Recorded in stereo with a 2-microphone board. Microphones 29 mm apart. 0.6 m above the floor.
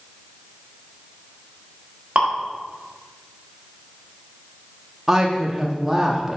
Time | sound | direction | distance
2.1 | dripping | 45° right (ahead or behind) | 1.4 m
5.1 | a woman speaking | 15° right (ahead or behind) | 0.6 m